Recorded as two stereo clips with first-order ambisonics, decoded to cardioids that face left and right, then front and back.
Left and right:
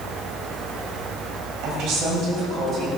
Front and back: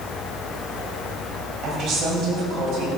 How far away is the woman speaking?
About 3.5 m.